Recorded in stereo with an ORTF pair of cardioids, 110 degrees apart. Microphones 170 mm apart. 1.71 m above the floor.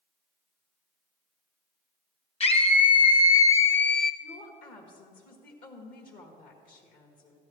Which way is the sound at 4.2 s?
65° left.